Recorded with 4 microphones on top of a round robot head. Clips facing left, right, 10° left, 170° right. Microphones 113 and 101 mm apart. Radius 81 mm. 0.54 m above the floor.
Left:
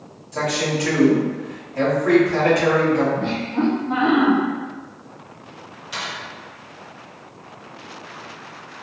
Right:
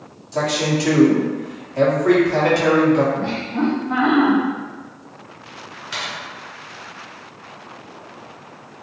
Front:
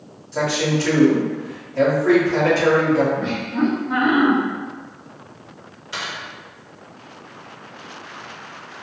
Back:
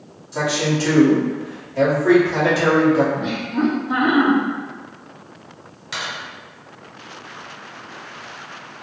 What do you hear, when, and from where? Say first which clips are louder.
0.3 s a man speaking: right 2 dB, even; 100° right, 1.3 m
3.2 s laughter: even, even; 135° left, 0.7 m
5.9 s a dropped coin: right 1 dB, back 1 dB; 140° right, 1.5 m